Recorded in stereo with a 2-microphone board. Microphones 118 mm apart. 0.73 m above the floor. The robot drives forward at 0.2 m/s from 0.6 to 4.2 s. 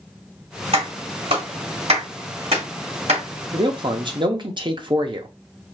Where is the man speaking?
40° right (ahead or behind), 0.7 m.